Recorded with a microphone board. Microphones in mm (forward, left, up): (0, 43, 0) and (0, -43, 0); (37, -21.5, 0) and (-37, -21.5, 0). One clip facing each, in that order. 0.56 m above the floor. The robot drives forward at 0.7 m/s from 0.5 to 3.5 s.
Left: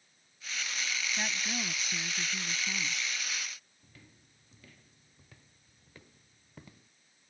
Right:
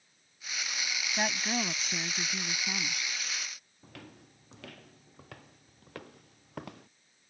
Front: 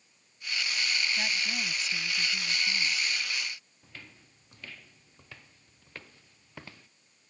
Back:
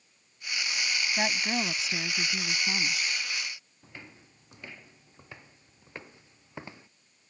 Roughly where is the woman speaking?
Behind right.